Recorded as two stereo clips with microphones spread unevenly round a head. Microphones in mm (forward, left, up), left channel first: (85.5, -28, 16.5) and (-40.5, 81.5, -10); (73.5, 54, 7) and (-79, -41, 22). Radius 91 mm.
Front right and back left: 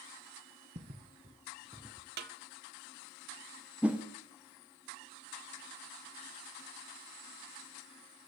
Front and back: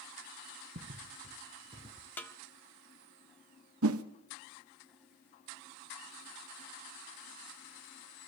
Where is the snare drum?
115° left, 1.2 m.